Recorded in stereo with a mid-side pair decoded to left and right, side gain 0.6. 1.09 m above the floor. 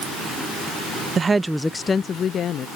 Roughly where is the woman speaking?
Ahead right.